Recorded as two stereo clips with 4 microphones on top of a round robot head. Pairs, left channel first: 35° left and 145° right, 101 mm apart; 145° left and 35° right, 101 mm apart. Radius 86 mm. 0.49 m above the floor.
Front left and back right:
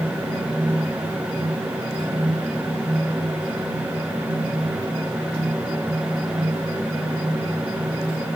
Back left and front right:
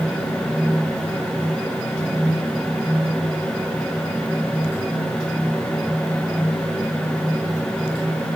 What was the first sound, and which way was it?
Only background noise.